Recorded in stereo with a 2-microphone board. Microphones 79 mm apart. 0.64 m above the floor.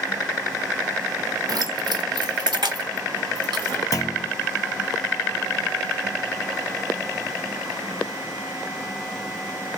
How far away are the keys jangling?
About 0.7 m.